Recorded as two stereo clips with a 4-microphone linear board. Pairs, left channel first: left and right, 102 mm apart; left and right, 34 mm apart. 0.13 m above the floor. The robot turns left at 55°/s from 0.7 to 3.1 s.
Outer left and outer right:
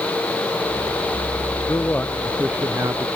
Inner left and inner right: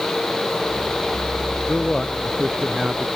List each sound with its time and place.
1.7 s a man speaking: 35° left; by 3.1 s 45° right